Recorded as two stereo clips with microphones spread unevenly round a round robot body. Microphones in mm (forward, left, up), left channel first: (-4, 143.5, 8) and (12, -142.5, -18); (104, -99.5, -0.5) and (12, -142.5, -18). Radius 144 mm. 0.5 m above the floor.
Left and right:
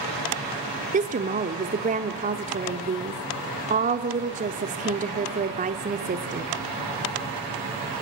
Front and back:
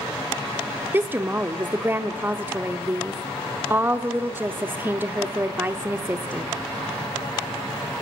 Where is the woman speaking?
120° right, 0.9 m.